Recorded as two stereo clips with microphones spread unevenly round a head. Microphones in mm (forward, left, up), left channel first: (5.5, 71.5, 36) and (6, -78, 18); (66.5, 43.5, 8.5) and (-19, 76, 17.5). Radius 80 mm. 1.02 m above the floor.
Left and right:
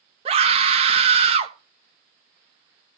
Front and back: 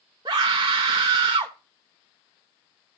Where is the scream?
135° right, 0.9 m.